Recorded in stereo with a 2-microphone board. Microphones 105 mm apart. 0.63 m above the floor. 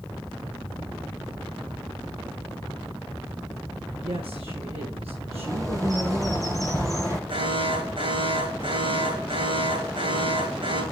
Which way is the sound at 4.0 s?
70° right (ahead or behind).